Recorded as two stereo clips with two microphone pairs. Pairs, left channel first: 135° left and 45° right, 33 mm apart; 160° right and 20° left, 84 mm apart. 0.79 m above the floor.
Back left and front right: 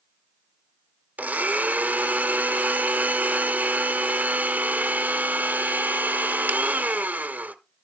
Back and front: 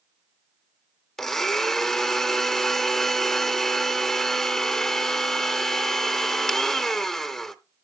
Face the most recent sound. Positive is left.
turn(degrees=-75)